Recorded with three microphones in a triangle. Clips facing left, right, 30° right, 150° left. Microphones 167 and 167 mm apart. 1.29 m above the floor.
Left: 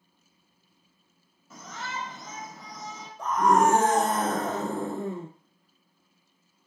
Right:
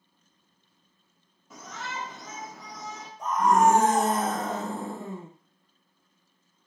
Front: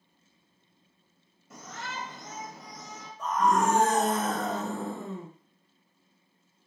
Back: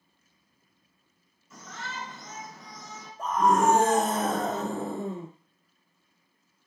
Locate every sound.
1.5 s a shout: 15° right, 2.5 m
3.2 s a scream: 105° left, 2.0 m